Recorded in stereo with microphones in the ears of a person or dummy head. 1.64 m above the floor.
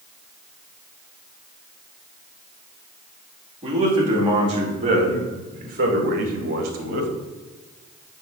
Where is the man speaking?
25° right (ahead or behind), 2.5 m; by 7.1 s 60° right (ahead or behind), 1.6 m.